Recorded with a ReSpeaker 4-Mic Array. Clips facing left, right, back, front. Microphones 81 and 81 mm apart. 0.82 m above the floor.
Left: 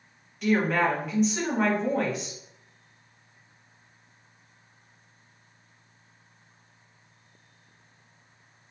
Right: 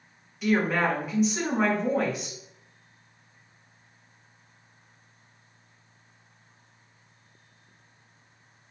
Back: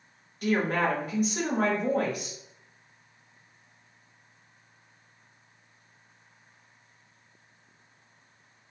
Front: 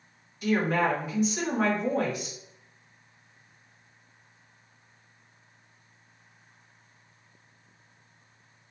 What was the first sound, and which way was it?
A woman speaking, 175° right.